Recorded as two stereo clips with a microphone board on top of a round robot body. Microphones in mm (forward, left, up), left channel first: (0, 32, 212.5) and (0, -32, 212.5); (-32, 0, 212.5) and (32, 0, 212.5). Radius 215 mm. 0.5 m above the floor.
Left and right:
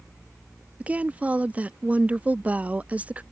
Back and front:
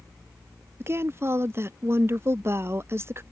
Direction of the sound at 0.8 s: 30° right.